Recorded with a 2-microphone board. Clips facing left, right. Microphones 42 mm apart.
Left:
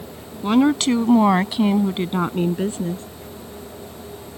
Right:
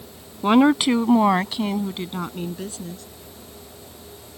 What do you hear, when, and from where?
0.4 s a woman speaking: 25° right (ahead or behind); by 3.0 s 35° left (ahead or behind)